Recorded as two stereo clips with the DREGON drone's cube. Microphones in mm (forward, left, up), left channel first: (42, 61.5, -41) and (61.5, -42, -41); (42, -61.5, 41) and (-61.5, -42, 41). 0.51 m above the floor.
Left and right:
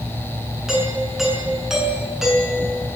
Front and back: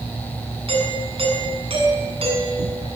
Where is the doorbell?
165° right, 7 m.